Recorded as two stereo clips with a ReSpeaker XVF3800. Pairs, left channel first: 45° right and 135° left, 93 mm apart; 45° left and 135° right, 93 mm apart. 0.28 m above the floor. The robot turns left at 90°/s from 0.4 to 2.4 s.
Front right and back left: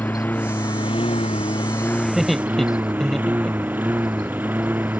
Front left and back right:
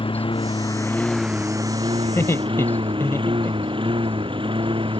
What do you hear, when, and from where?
0.0 s a lawn mower: 25° left; by 5.0 s 155° right
2.0 s laughter: 65° left; by 3.9 s 35° left